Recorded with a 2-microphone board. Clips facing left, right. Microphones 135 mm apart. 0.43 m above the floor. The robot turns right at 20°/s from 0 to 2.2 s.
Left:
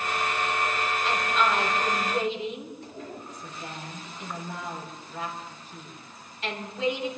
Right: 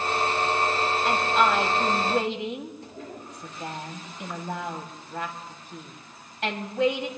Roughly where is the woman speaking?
Right.